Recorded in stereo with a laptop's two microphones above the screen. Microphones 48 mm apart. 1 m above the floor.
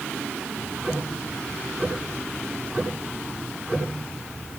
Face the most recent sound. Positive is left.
turn(degrees=-40)  # may be behind; listen again after turning